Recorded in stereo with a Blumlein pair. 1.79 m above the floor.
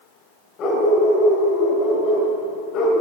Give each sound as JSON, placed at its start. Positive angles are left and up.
{"t": 0.6, "sound": "a dog barking", "azimuth_deg": 30, "distance_m": 4.0}